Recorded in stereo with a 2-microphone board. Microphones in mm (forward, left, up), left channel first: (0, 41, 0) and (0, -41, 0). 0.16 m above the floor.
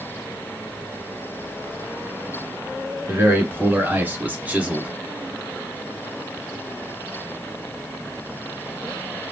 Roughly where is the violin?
I don't hear a violin.